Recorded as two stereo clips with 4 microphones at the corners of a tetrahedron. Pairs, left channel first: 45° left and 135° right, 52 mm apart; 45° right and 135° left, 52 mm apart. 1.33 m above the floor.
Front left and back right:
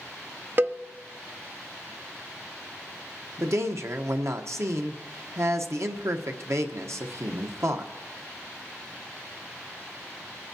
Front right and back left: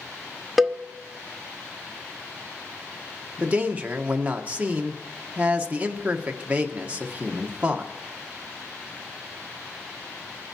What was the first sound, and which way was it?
A cowbell, 140° right.